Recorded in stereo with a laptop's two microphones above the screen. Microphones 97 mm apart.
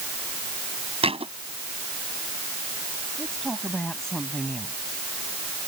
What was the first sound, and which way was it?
A thud, 85° right.